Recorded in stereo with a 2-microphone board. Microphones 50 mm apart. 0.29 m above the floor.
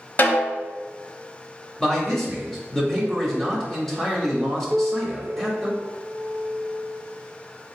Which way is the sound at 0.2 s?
40° left (ahead or behind).